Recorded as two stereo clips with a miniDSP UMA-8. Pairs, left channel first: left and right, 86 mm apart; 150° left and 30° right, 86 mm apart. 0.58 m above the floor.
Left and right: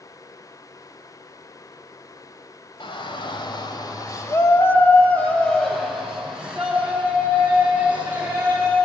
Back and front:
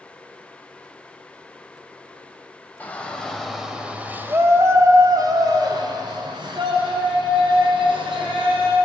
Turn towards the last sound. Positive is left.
turn(degrees=-20)